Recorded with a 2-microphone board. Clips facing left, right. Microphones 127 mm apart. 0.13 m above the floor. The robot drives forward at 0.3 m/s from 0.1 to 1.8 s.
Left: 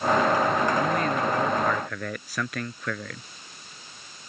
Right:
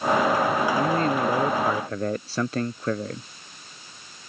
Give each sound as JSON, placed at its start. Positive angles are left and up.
{"t": 0.8, "sound": "a man speaking", "side_deg": -30}